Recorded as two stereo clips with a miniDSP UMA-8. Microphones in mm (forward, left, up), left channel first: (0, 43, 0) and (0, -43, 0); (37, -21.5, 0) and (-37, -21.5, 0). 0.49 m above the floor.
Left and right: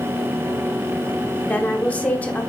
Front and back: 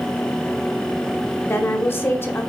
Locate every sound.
1.4 s a woman speaking: 30° left, 1.0 m